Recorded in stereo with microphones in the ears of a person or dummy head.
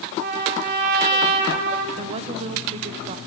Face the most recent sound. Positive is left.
turn(degrees=-30)  # may be behind; listen again after turning